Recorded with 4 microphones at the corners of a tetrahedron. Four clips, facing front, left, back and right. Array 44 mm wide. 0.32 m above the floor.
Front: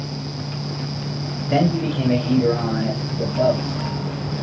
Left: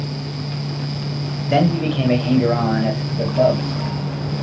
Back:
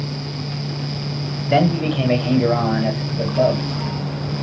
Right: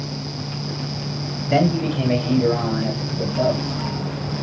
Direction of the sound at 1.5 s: 160° left.